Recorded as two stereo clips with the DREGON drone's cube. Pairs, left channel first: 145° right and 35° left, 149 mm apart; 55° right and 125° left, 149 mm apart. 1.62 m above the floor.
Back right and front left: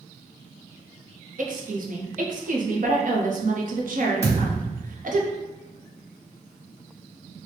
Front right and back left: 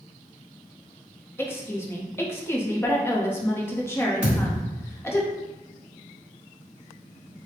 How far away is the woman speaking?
About 0.7 m.